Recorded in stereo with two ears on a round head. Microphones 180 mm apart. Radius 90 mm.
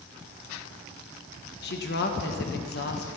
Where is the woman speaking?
55° left (ahead or behind), 1.4 m.